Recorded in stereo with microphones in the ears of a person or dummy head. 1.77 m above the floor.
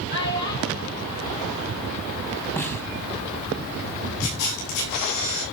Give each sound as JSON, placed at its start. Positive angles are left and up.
{"t": 0.1, "sound": "a child speaking", "side_deg": 60, "distance_m": 3.0}
{"t": 2.6, "sound": "a snare drum", "side_deg": 10, "distance_m": 2.0}
{"t": 4.2, "sound": "a camera shutter", "side_deg": 85, "distance_m": 6.0}